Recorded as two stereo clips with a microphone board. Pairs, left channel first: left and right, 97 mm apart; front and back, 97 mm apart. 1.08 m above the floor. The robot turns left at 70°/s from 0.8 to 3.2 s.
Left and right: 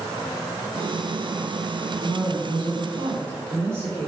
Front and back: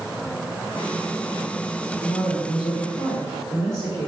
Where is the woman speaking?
30° right, 3.5 m; by 4.1 s 115° right, 3.5 m.